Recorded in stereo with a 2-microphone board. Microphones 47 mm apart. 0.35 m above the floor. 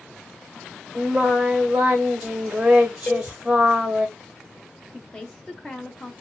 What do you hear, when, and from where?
0.9 s singing: 25° right (ahead or behind), 1.1 m
3.1 s a cowbell: 30° left (ahead or behind), 0.5 m
4.9 s a woman speaking: 20° left (ahead or behind), 0.8 m